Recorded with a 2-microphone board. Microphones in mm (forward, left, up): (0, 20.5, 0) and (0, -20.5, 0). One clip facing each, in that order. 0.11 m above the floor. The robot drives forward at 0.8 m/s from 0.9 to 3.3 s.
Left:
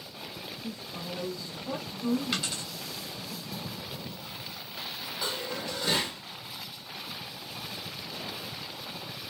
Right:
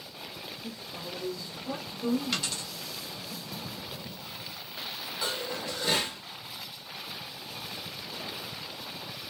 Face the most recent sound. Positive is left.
turn(degrees=-5)  # may be behind; listen again after turning